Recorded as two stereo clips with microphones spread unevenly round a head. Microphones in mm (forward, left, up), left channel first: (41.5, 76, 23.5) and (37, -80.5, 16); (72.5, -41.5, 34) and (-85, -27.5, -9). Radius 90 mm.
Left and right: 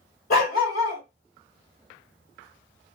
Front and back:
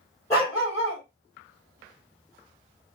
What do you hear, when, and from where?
0.3 s a dog barking: 65° left, 2.5 m